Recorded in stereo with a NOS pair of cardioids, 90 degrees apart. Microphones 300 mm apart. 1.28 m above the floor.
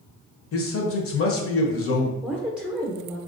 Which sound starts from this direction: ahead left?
A man speaking, at 0.5 s.